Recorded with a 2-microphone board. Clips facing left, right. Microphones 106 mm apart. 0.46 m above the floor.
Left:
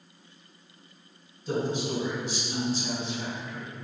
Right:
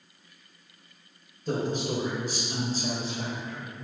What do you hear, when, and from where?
1.5 s a man speaking: 55° right (ahead or behind), 2.5 m; by 3.7 s 35° right (ahead or behind), 2.5 m